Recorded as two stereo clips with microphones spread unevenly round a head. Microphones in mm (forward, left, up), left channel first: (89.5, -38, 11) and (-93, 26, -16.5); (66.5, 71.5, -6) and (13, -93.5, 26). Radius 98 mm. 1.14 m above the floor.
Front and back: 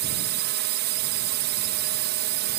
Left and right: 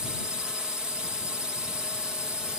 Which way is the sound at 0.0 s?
160° left.